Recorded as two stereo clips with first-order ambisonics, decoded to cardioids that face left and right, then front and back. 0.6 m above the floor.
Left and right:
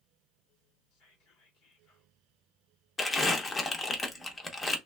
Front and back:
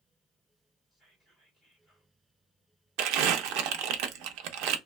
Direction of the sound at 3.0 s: 165° left.